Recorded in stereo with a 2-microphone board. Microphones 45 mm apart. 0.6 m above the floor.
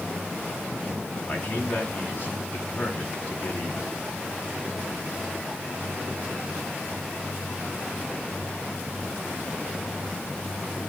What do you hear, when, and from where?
1.3 s a man speaking: 35° left (ahead or behind), 5.5 m